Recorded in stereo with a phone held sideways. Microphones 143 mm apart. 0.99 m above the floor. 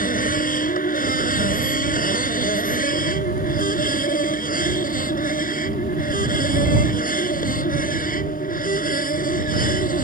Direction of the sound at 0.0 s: 75° left (ahead or behind).